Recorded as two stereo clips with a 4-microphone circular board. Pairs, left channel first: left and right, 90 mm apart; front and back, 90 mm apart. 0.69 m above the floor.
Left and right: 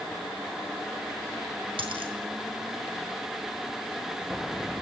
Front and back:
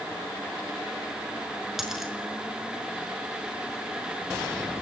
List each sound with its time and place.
1.8 s a dropped coin: 95° right, 5 m